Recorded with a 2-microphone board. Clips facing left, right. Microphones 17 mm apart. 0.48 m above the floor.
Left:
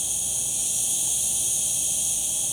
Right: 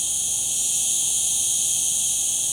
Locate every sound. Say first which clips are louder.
0.0 s an insect: right 3 dB; 75° right (ahead or behind), 3 m